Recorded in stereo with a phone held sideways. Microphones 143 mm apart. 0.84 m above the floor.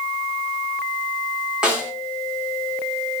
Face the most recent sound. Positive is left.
turn(degrees=-5)  # may be behind; listen again after turning